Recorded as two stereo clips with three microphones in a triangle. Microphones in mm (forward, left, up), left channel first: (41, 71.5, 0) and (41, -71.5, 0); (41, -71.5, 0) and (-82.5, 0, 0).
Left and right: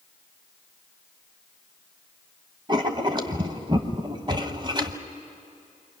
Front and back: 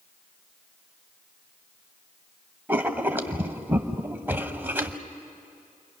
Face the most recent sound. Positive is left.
turn(degrees=-135)